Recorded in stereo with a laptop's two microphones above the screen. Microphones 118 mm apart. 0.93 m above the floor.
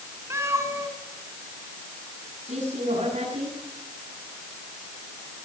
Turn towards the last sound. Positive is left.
turn(degrees=-75)  # may be behind; listen again after turning